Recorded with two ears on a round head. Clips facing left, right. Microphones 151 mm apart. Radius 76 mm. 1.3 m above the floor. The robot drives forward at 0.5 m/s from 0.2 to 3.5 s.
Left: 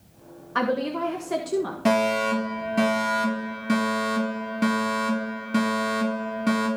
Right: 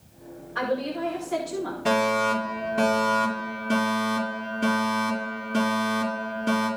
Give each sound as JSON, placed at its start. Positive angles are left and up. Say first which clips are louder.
{"t": 0.6, "sound": "a woman speaking", "louder": "left 2 dB", "side_deg": 75, "distance_m": 1.3}
{"t": 1.9, "sound": "a fire alarm", "louder": "left 1 dB", "side_deg": 70, "distance_m": 5.0}